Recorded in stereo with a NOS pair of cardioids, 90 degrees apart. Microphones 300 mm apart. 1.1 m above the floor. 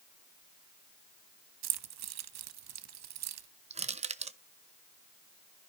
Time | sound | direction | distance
1.6 | keys jangling | 60° right | 0.8 m
3.7 | crushing | 20° right | 0.8 m